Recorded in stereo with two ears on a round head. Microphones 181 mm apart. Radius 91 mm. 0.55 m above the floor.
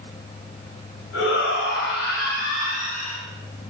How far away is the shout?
About 4 m.